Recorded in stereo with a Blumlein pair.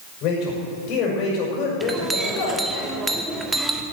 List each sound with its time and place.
0.2 s a man speaking: 35° left, 6.5 m
1.8 s a clink: 10° right, 1.6 m